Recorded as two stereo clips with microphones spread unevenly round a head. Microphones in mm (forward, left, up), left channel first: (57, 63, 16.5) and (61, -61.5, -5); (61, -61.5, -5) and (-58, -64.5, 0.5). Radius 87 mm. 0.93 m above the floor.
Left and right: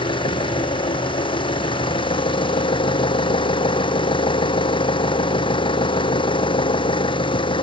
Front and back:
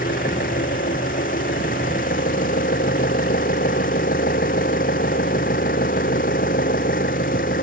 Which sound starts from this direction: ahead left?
An engine running, at 0.0 s.